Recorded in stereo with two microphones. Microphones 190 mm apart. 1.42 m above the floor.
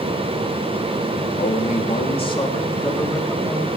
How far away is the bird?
I don't hear a bird.